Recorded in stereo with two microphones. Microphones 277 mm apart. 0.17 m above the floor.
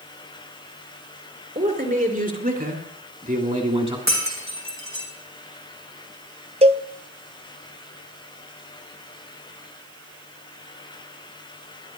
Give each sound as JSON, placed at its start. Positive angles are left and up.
{"t": 1.6, "sound": "a man speaking", "side_deg": -30, "distance_m": 3.0}
{"t": 4.1, "sound": "breaking glass", "side_deg": -80, "distance_m": 4.0}
{"t": 6.6, "sound": "a cowbell", "side_deg": -25, "distance_m": 0.8}